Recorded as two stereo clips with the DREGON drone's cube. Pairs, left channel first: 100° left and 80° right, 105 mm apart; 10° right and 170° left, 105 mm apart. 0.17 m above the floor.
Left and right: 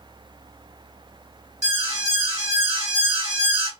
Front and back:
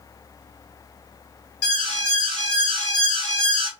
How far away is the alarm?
About 1.5 m.